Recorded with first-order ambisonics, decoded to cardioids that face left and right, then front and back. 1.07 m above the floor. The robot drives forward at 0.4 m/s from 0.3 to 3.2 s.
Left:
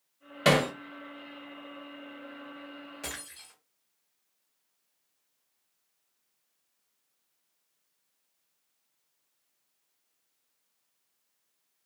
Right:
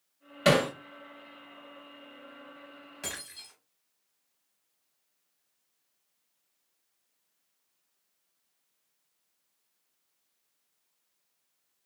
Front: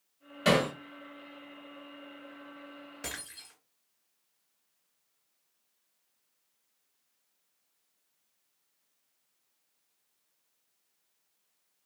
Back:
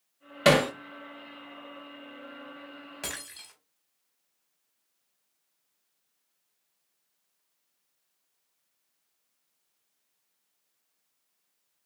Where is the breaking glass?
175° right, 2 m.